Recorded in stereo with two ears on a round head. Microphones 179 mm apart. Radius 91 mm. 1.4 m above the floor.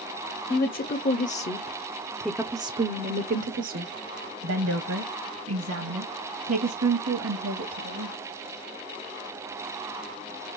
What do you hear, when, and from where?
0.5 s a woman speaking: 50° left (ahead or behind), 1.2 m; by 8.2 s 80° right, 3 m